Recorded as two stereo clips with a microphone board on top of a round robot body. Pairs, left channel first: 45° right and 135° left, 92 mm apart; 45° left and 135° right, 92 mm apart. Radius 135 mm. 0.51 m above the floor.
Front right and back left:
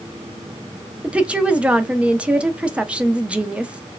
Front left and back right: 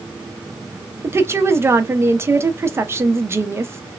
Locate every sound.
1.0 s a woman speaking: 160° right, 0.8 m